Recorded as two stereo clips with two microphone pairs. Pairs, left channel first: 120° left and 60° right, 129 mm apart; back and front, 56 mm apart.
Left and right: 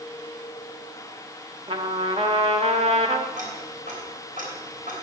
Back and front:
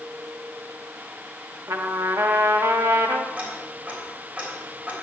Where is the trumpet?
15° right, 1.1 m.